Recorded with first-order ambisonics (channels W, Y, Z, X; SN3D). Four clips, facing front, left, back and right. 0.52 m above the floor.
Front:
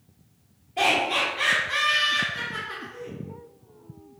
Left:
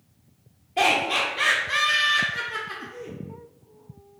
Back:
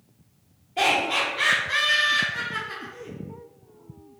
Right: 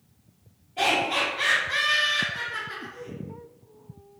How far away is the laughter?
About 0.9 m.